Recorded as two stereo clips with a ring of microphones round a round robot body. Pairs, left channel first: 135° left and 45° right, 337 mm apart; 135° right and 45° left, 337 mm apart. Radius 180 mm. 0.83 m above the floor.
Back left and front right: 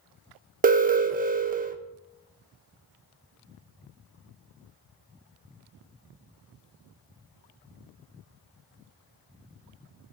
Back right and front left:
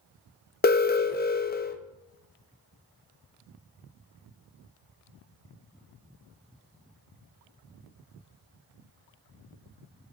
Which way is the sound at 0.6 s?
95° right.